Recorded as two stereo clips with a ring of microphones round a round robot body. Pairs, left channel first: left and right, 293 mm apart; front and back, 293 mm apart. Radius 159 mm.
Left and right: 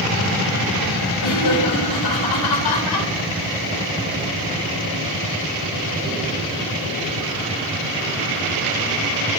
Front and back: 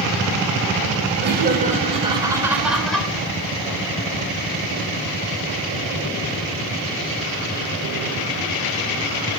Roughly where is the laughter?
Behind left.